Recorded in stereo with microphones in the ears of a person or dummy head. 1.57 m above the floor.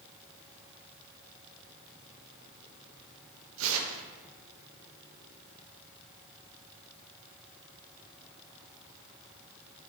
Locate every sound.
3.6 s tearing paper: 75° right (ahead or behind), 0.8 m